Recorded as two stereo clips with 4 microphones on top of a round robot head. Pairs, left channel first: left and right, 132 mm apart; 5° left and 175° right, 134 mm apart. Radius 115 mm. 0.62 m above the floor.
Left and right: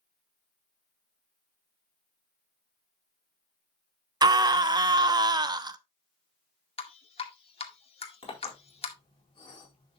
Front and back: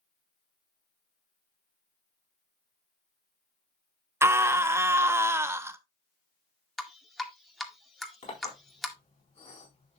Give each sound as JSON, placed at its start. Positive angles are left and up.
{"t": 4.2, "sound": "a scream", "azimuth_deg": -120, "distance_m": 0.7}
{"t": 6.8, "sound": "dripping", "azimuth_deg": 95, "distance_m": 1.7}
{"t": 8.2, "sound": "a clink", "azimuth_deg": 40, "distance_m": 4.5}